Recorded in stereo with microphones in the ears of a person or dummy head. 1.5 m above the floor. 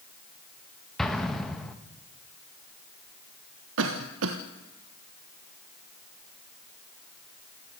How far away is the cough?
About 1.3 m.